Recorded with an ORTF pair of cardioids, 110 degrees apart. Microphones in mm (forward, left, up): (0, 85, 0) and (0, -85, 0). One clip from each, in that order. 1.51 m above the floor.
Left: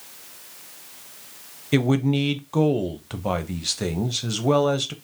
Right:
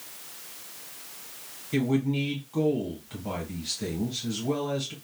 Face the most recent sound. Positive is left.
turn(degrees=70)